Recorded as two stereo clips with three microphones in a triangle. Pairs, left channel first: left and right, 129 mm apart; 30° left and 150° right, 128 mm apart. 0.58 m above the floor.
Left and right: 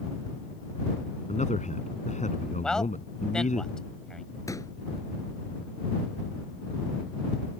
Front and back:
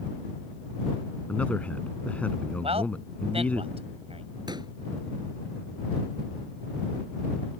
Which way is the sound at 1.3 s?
110° left.